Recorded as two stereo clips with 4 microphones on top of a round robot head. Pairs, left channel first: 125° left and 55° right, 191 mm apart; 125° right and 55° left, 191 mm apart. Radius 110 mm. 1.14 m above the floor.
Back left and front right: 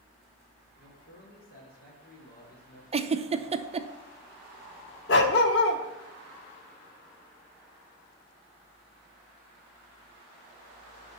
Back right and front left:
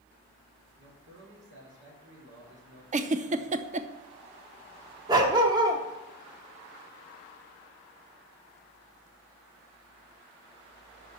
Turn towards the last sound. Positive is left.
turn(degrees=120)